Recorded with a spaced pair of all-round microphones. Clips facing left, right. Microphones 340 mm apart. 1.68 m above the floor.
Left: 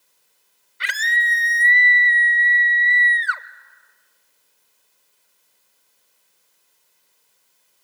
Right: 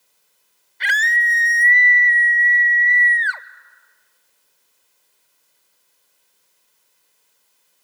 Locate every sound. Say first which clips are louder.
0.8 s a scream: right 3 dB; 10° left (ahead or behind), 0.8 m